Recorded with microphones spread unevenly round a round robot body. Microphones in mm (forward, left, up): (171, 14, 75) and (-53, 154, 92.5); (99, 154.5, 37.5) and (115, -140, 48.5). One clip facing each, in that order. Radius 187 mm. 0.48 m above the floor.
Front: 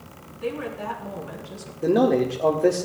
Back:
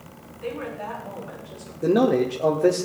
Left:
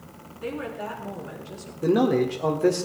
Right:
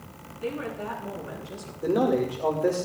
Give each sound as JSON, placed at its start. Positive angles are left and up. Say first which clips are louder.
{"t": 0.4, "sound": "a woman speaking", "louder": "front 2 dB, even", "azimuth_deg": 0, "distance_m": 7.5}
{"t": 1.8, "sound": "a man speaking", "louder": "even, left 3 dB", "azimuth_deg": 65, "distance_m": 1.9}